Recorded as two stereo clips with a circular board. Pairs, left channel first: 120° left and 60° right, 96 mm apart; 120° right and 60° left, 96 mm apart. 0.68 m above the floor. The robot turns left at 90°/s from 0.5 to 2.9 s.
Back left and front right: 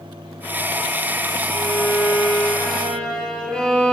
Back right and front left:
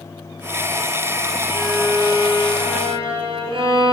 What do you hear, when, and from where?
1.5 s a violin: 160° left, 2.5 m; by 3.9 s 40° left, 2.5 m